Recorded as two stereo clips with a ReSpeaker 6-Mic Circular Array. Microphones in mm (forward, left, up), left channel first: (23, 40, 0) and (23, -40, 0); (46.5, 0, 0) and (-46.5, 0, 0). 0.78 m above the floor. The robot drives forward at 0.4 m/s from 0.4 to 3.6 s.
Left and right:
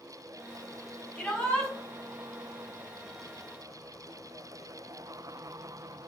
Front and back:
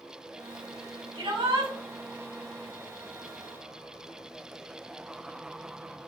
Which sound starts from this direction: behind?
A shout, at 1.1 s.